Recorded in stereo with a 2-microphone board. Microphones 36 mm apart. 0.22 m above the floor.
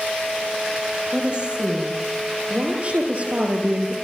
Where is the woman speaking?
30° right (ahead or behind), 7 m; by 3.9 s 45° right (ahead or behind), 4.5 m.